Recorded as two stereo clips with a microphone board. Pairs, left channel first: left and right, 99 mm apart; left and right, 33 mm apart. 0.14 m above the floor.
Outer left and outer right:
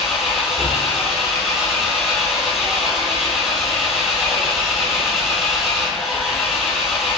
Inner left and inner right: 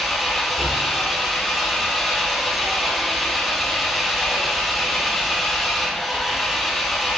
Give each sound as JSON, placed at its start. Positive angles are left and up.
{"t": 0.0, "sound": "an engine running", "side_deg": 0, "distance_m": 1.1}